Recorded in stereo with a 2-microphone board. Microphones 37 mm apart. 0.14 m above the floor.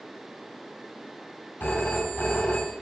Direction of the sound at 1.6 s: 65° left (ahead or behind).